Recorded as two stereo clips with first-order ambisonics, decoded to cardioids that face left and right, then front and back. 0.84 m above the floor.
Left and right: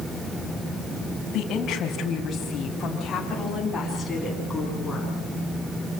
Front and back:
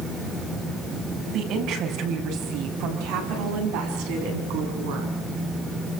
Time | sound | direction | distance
1.3 | a woman speaking | 145° left | 5 m